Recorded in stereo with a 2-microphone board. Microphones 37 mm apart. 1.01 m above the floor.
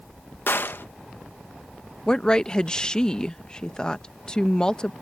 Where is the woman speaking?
20° left (ahead or behind).